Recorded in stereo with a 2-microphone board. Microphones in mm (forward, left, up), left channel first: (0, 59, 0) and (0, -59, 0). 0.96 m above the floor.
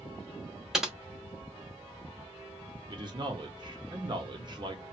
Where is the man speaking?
40° right (ahead or behind), 1.1 m.